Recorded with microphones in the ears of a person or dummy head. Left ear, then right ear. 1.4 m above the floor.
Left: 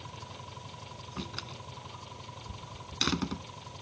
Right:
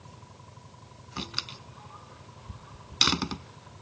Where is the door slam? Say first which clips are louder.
Right 7 dB; 35° right (ahead or behind).